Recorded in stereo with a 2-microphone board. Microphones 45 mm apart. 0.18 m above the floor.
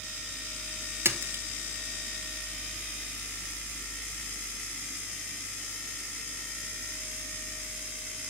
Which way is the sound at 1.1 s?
60° right (ahead or behind).